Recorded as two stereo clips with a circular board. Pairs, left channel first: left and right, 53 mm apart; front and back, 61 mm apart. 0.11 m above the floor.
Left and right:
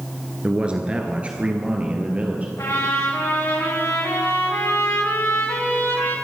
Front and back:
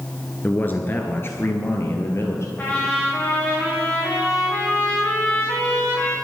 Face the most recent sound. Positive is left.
turn(degrees=60)